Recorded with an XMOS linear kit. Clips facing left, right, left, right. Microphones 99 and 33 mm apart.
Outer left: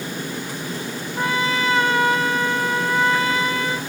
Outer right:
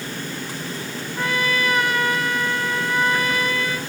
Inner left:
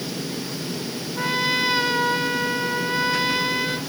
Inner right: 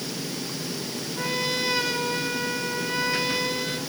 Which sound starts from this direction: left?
A trumpet, at 1.2 s.